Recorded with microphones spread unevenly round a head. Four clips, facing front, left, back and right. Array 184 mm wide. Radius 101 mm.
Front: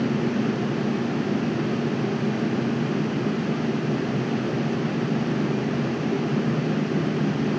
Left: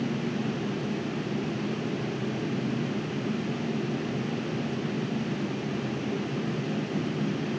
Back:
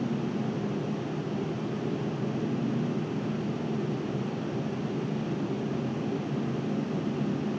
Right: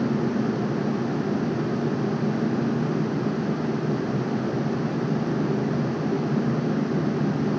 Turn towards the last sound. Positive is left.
No sound to turn to.